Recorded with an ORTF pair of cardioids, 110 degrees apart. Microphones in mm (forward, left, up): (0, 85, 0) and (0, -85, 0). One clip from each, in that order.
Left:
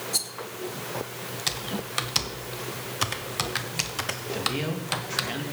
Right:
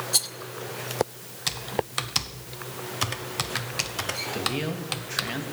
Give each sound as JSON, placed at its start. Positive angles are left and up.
{"t": 0.1, "sound": "a rattle", "azimuth_deg": -20, "distance_m": 0.8}
{"t": 1.5, "sound": "typing on a keyboard", "azimuth_deg": 0, "distance_m": 0.9}
{"t": 4.3, "sound": "a man speaking", "azimuth_deg": -10, "distance_m": 2.5}